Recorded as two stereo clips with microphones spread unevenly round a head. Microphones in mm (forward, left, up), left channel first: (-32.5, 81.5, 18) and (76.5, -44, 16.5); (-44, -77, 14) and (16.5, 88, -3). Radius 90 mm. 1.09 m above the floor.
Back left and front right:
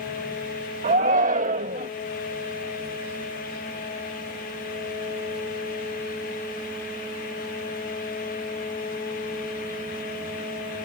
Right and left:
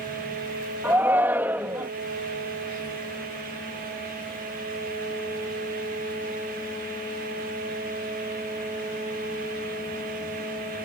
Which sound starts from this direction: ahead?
A shout, at 0.8 s.